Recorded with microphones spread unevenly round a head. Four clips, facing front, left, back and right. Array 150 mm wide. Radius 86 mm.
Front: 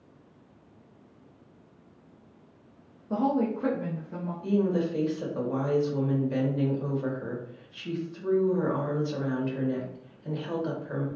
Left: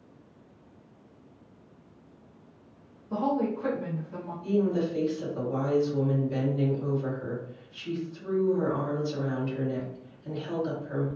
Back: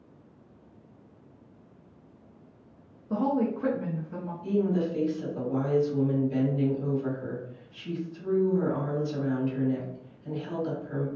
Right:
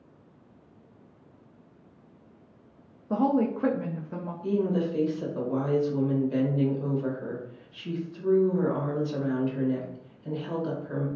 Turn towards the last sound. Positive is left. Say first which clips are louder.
# even, front 1 dB
turn(degrees=-25)